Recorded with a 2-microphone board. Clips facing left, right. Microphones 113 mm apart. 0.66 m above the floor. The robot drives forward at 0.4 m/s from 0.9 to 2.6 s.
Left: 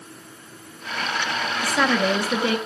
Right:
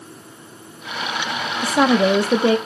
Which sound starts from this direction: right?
A woman speaking, at 1.6 s.